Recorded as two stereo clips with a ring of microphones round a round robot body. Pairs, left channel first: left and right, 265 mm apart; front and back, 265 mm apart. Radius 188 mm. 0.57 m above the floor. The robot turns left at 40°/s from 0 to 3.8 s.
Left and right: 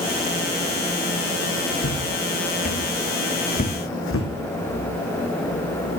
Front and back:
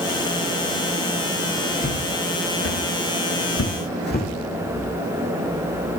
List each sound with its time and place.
1.8 s footsteps: 55° left, 3.5 m; by 4.3 s 60° left, 1.6 m